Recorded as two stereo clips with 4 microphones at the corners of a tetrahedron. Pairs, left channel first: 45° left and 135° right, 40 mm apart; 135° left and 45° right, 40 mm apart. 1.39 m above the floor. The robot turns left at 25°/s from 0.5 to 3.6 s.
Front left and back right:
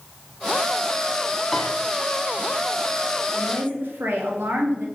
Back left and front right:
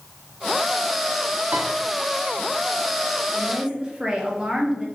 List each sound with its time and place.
1.5 s a piano: 35° right, 1.1 m; by 1.7 s 40° right, 1.1 m
3.3 s a woman speaking: 105° right, 1.8 m; by 4.9 s 115° right, 1.8 m